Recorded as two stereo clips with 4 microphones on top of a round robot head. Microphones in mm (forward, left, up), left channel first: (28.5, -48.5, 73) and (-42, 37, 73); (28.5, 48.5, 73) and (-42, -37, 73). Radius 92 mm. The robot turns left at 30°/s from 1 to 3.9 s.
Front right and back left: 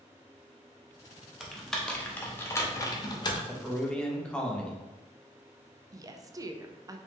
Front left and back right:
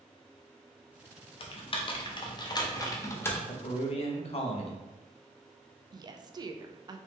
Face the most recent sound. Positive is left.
turn(degrees=-175)